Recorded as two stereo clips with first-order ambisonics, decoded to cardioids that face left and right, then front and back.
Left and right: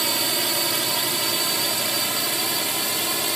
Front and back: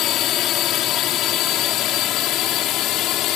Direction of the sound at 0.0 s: 20° right.